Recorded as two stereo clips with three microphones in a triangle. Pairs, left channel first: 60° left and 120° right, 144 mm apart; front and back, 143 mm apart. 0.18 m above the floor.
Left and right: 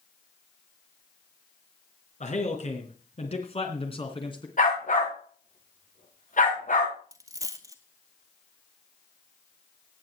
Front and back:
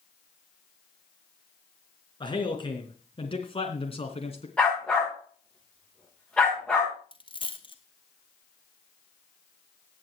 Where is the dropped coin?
55° right, 1.7 m.